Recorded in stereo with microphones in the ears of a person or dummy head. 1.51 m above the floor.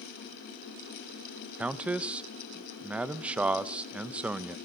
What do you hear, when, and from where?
1.6 s a man speaking: 10° right (ahead or behind), 0.5 m